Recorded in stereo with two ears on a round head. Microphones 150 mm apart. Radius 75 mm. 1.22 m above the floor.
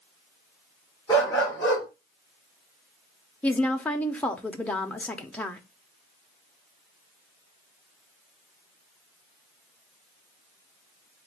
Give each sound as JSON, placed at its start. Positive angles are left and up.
{"t": 1.1, "sound": "a dog barking", "side_deg": 25, "distance_m": 4.5}
{"t": 3.4, "sound": "a woman speaking", "side_deg": 5, "distance_m": 0.9}